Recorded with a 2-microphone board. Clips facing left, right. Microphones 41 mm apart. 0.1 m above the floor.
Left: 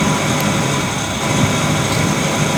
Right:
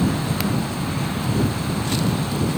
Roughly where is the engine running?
Left.